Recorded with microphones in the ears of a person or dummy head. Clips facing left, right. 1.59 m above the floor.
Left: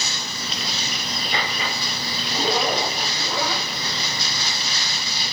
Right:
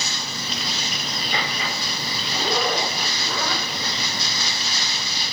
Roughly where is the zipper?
Centre.